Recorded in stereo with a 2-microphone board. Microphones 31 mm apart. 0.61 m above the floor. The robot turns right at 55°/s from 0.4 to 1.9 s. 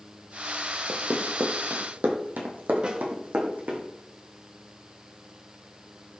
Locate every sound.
0.9 s running footsteps: 60° right (ahead or behind), 1.3 m; by 3.8 s 75° right (ahead or behind), 2.5 m
2.8 s a snare drum: 30° right (ahead or behind), 0.9 m